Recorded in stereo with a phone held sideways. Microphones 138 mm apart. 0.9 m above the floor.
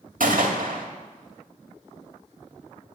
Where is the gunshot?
75° right (ahead or behind), 1.7 m.